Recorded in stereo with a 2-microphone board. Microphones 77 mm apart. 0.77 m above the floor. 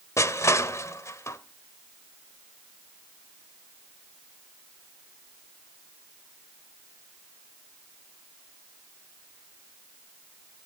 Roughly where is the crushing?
Left.